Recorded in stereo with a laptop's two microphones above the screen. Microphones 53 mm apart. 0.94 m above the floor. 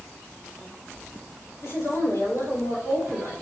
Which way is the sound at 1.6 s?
80° left.